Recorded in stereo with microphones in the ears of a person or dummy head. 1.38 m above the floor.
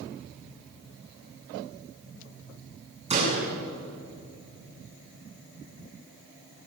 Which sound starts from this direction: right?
A door slam, at 3.1 s.